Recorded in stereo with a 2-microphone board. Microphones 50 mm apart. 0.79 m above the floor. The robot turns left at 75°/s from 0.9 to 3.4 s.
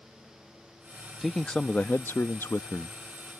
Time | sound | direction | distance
1.2 | a man speaking | straight behind | ?